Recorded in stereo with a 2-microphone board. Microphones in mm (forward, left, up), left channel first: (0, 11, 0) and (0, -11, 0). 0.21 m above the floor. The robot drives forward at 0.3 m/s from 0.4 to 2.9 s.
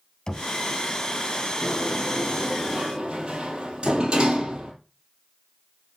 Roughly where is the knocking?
Left.